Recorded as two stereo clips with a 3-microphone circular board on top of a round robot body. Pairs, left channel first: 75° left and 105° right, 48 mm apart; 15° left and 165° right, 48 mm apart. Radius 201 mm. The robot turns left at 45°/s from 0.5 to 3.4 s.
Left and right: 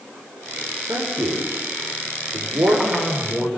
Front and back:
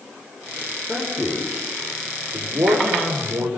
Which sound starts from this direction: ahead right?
A man speaking, at 0.9 s.